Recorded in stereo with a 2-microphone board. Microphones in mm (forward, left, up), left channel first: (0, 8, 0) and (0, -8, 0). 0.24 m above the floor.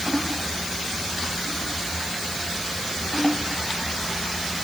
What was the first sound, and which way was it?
Only background noise.